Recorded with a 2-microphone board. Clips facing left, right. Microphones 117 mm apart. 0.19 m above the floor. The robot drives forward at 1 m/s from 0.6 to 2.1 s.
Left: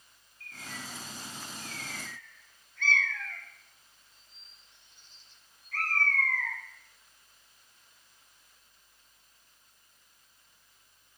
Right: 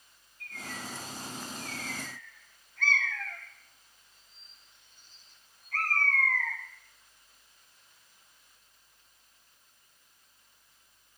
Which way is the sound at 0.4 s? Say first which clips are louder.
Right 3 dB; 60° right (ahead or behind).